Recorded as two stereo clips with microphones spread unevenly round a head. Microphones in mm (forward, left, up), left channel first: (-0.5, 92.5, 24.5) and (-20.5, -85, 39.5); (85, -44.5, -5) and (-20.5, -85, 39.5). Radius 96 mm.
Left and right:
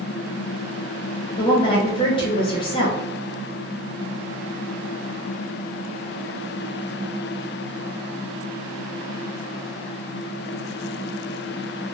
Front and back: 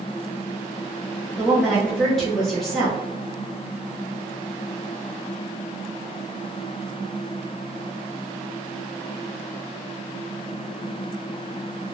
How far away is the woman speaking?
About 0.6 m.